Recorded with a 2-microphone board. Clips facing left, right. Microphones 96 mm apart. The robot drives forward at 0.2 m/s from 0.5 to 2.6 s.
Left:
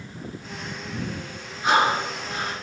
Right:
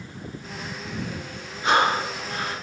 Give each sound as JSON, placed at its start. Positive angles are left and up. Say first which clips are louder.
{"t": 1.6, "sound": "breathing", "louder": "even", "side_deg": 20, "distance_m": 1.4}